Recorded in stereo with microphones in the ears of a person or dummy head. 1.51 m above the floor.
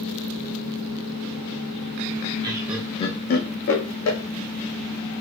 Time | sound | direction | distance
2.4 | laughter | 25° right (ahead or behind) | 0.6 m